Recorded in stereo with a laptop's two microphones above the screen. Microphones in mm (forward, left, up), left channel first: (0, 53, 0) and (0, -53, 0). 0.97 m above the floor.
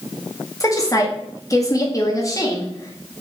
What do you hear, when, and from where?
0.6 s a woman speaking: 30° left (ahead or behind), 1.9 m